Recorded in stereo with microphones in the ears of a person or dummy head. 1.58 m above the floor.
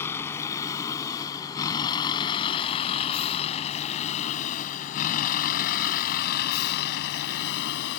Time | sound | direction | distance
0.0 | a vehicle | 10° left (ahead or behind) | ?